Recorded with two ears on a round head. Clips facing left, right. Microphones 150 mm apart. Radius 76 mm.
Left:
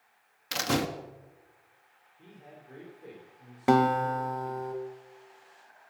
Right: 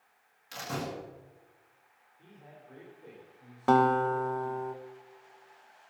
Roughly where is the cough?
No cough in this recording.